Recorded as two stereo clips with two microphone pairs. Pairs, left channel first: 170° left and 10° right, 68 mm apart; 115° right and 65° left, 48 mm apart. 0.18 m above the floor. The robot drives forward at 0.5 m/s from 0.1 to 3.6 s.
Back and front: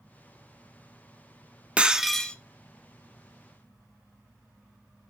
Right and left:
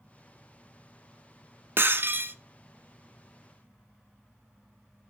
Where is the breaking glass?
55° left, 0.5 m; by 2.4 s 95° left, 0.5 m.